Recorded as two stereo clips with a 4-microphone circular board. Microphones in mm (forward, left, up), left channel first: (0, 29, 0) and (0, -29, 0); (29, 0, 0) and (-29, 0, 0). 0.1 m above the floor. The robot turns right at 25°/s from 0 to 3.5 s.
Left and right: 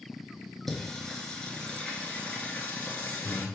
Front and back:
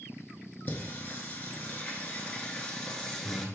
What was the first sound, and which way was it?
Singing, 5° left.